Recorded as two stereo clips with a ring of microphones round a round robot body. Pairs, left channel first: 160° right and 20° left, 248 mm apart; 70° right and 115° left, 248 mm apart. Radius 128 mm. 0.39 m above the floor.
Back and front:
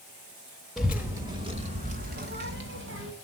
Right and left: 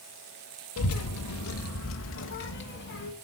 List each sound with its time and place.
0.8 s a child speaking: 70° right, 0.9 m; by 3.1 s 20° right, 1.6 m